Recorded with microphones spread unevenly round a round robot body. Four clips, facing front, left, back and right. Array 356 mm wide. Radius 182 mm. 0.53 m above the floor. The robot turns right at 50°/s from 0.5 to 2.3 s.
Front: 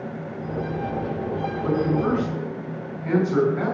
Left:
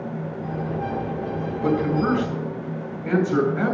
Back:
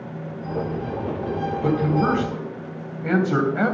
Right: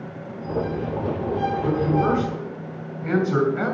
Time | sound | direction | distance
1.6 | a man speaking | 150° left | 3.5 m